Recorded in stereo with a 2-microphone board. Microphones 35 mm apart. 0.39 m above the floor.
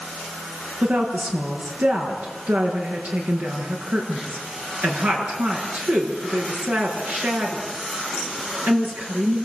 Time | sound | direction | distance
0.8 | a woman speaking | 60° right (ahead or behind) | 6 m